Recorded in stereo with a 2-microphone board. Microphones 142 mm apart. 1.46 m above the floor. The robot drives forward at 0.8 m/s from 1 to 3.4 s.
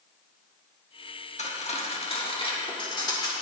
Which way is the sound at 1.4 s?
55° left (ahead or behind).